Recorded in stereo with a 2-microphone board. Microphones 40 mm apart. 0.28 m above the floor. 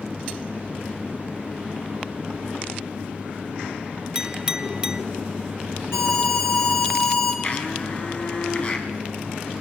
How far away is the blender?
About 3 m.